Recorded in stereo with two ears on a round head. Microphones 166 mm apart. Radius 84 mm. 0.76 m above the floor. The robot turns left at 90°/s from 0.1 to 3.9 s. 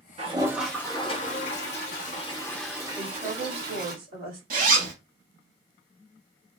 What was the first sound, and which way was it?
A toilet flushing, 135° right.